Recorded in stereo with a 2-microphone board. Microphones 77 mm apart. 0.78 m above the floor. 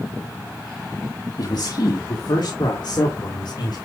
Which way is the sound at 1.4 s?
55° left (ahead or behind).